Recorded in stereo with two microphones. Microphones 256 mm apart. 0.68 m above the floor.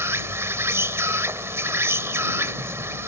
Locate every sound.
0.0 s an insect: 10° right (ahead or behind)